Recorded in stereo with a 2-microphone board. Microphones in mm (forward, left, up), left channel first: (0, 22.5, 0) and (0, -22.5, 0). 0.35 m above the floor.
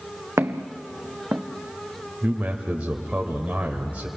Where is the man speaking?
30° right (ahead or behind), 1.5 m.